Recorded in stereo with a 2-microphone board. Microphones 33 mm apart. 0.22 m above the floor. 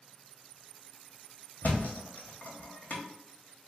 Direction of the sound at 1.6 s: 55° left (ahead or behind).